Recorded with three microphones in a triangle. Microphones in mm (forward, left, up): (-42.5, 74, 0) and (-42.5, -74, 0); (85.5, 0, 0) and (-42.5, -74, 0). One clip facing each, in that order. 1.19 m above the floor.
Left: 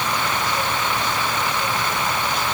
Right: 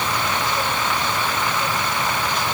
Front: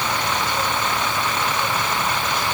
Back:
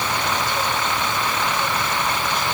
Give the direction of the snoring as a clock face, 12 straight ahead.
No snoring in this recording.